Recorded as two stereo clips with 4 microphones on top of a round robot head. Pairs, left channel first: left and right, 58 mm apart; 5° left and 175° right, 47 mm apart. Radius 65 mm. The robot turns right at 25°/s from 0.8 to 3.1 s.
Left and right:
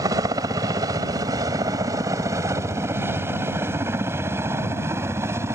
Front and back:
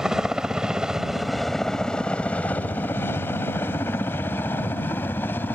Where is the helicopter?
95° right; by 5.6 s 50° right.